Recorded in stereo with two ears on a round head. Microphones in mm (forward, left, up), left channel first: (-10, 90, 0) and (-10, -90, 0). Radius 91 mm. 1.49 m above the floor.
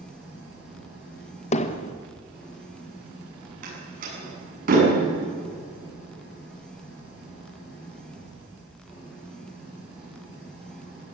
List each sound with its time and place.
0.0 s an engine running: 5° right (ahead or behind), 8.5 m
1.5 s hammering: 35° left (ahead or behind), 1.3 m
3.6 s a door slam: 40° right (ahead or behind), 8 m